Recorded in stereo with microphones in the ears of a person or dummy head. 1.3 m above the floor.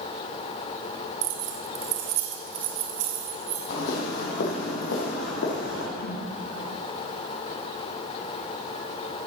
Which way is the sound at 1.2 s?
70° right (ahead or behind).